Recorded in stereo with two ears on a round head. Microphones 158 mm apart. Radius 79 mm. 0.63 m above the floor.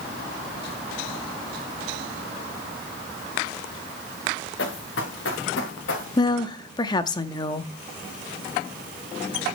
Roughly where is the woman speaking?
Left.